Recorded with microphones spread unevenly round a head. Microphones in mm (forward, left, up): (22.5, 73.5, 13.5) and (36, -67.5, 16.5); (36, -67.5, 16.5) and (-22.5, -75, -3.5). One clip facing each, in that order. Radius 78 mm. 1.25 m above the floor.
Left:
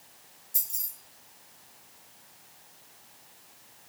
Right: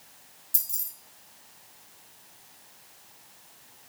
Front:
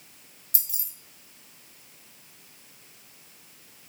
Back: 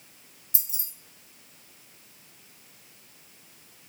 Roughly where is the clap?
I don't hear a clap.